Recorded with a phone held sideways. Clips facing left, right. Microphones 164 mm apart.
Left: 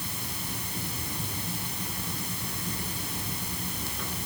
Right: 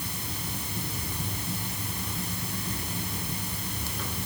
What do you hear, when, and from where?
Only background noise.